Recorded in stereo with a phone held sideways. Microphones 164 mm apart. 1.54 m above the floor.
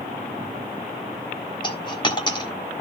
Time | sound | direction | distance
1.6 | a dropped coin | 25° left (ahead or behind) | 1.2 m